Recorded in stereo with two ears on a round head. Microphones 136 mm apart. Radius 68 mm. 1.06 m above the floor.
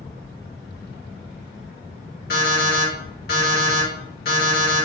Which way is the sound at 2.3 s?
70° left (ahead or behind).